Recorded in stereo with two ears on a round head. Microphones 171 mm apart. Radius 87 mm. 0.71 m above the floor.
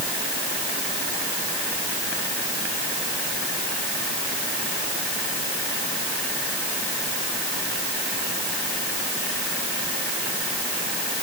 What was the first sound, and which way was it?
Only background noise.